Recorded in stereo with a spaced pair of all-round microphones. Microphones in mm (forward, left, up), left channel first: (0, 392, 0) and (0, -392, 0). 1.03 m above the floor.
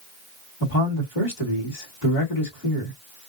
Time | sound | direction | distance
0.6 | a man speaking | 75° left (ahead or behind) | 2.5 m